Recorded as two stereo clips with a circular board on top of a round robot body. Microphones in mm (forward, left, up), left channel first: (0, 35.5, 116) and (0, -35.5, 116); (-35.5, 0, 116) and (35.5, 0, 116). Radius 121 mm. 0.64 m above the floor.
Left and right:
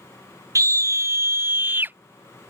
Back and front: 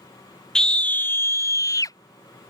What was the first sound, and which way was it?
A scream, 100° right.